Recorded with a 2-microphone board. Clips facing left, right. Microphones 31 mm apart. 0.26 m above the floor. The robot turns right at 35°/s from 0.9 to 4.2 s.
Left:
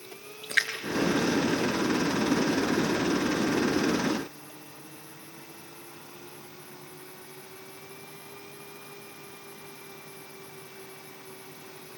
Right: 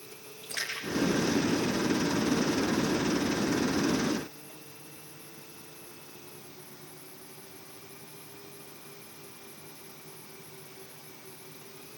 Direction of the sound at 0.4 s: 75° left (ahead or behind).